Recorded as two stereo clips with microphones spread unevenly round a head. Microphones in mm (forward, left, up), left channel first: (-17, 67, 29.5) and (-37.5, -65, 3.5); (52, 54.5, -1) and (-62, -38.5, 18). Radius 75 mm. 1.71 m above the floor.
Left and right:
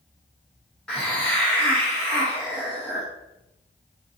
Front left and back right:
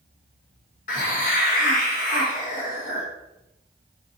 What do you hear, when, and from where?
0.9 s a hiss: 5° left, 0.8 m